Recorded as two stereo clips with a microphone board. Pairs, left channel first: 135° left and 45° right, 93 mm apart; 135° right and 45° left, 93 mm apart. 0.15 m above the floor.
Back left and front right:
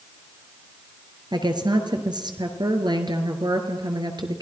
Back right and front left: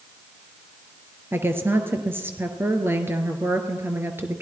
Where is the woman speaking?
20° right, 2.5 m.